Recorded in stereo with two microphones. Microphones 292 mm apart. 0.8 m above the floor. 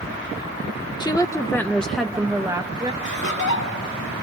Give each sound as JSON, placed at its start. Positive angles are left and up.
{"t": 1.0, "sound": "a woman speaking", "side_deg": 15, "distance_m": 1.0}
{"t": 3.0, "sound": "laughter", "side_deg": 80, "distance_m": 4.5}